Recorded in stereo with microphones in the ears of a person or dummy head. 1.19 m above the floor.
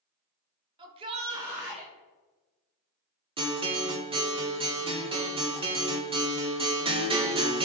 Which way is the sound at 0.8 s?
25° right (ahead or behind).